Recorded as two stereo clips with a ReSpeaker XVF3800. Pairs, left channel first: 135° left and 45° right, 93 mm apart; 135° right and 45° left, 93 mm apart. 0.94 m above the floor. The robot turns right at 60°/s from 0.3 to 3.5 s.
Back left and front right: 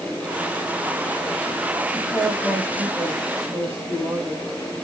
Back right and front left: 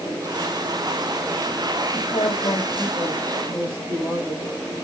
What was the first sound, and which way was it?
A woman speaking, 140° right.